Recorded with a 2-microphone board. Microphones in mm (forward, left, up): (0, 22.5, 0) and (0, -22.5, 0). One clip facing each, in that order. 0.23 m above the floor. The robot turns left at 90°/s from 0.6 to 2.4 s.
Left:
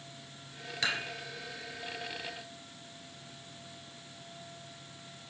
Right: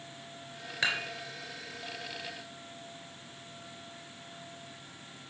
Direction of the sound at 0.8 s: 20° right (ahead or behind).